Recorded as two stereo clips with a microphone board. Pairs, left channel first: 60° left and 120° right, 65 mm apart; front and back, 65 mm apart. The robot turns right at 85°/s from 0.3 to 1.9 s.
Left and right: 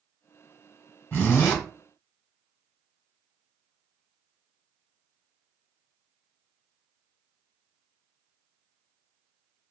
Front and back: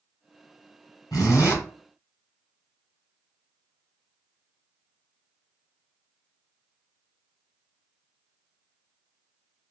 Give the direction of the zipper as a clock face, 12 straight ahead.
12 o'clock.